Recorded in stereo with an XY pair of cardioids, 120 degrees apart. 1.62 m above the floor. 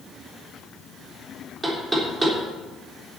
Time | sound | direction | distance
1.6 | knocking | 20° right | 3.5 m